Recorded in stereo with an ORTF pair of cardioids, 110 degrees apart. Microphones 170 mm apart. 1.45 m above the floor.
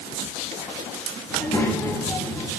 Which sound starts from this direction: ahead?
A child speaking, at 1.3 s.